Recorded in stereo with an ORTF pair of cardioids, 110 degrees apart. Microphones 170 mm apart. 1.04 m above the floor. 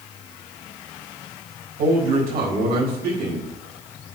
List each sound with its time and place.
1.8 s a man speaking: 65° right, 4.5 m